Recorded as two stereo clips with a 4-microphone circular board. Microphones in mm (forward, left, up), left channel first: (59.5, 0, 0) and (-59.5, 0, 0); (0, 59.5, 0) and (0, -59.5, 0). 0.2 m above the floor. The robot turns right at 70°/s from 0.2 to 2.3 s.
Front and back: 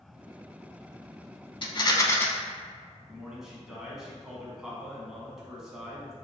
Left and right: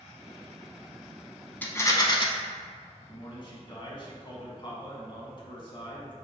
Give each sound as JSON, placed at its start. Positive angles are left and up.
{"t": 1.6, "sound": "a rattle", "azimuth_deg": 20, "distance_m": 0.6}
{"t": 3.1, "sound": "a man speaking", "azimuth_deg": 95, "distance_m": 1.3}